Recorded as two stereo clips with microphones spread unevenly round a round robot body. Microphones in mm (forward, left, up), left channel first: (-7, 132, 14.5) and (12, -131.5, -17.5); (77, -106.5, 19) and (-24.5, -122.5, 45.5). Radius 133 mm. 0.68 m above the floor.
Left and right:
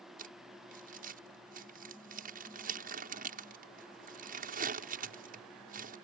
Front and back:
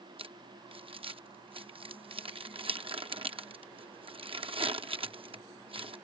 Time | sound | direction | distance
0.2 | crumpling | 135° right | ?